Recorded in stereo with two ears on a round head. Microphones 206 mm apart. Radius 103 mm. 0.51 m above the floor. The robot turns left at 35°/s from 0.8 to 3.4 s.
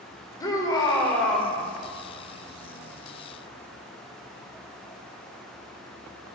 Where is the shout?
15° left (ahead or behind), 1.8 m; by 1.6 s 5° right (ahead or behind), 1.8 m.